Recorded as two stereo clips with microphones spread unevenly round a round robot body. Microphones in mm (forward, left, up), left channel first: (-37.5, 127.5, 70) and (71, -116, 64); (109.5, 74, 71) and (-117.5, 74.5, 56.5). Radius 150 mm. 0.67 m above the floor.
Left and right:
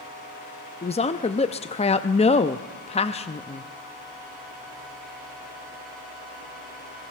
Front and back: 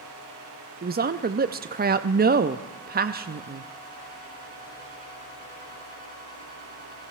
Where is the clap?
No clap in this recording.